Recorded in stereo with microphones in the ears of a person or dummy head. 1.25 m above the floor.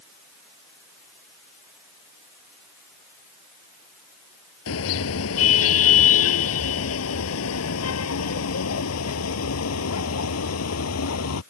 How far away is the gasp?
No gasp in this recording.